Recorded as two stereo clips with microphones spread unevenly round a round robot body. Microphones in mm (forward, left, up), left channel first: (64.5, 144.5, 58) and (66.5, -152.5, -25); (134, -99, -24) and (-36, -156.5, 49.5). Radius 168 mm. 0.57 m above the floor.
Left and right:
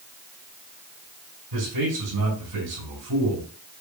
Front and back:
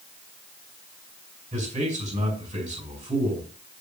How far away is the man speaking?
About 4.5 m.